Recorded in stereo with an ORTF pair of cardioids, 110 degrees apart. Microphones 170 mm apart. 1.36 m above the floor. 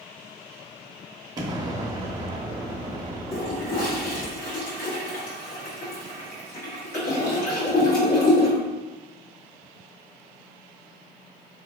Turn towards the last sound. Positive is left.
turn(degrees=60)